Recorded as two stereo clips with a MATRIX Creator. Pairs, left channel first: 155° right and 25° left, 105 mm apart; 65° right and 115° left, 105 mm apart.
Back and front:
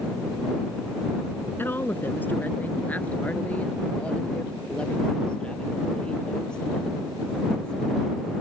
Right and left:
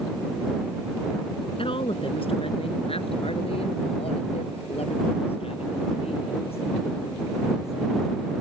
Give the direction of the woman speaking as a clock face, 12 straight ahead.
3 o'clock.